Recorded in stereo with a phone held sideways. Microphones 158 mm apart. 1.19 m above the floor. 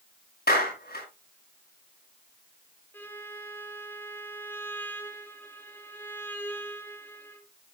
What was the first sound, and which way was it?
A clap, 70° left (ahead or behind).